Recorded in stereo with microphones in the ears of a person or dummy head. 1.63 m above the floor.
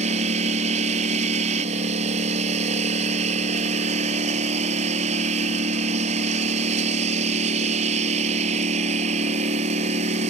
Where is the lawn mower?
40° right (ahead or behind).